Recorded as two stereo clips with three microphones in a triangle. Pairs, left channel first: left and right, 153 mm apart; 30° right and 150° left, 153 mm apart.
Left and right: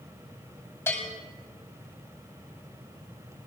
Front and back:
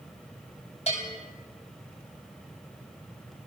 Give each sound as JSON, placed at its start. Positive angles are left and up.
{"t": 0.9, "sound": "a bell", "azimuth_deg": 15, "distance_m": 8.5}